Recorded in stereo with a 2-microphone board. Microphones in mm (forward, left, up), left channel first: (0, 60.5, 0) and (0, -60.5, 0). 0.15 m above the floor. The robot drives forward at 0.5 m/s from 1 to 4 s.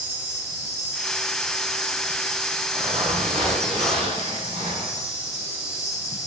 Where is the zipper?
50° right (ahead or behind), 7.5 m; by 5.1 s 55° right (ahead or behind), 7 m.